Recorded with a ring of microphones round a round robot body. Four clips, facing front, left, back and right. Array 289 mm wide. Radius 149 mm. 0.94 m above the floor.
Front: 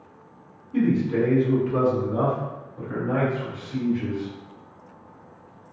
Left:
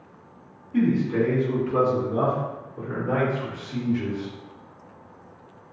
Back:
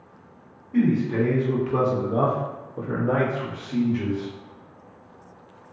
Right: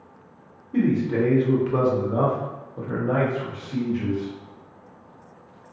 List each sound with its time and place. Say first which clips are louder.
0.7 s a man speaking: even, even; 100° right, 1.4 m; by 4.3 s straight behind, 1.4 m